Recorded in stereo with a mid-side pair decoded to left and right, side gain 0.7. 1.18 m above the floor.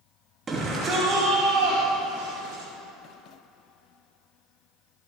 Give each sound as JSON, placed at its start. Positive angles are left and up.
{"t": 0.5, "sound": "a shout", "azimuth_deg": -25, "distance_m": 2.5}